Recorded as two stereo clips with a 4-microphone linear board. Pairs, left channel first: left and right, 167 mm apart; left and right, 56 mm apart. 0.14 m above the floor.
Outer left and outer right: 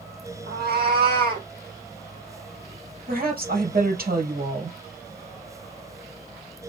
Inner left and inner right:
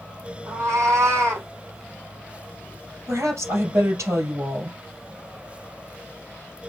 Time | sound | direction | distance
0.5 | a cat meowing | 75° right (ahead or behind) | 2.5 m
3.1 | a woman speaking | 65° right (ahead or behind) | 3 m